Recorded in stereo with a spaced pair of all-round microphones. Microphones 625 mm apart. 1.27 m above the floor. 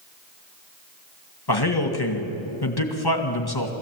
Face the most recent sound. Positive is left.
turn(degrees=35)  # may be behind; listen again after turning